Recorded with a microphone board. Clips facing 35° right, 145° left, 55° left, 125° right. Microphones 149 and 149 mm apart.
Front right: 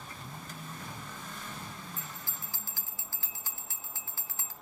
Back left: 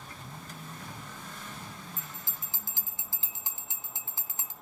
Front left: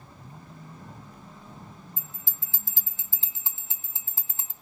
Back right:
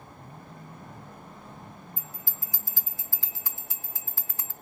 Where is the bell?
100° left, 0.7 m.